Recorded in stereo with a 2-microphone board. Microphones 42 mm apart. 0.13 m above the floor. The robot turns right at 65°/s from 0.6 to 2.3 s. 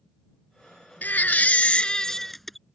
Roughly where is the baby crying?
Left.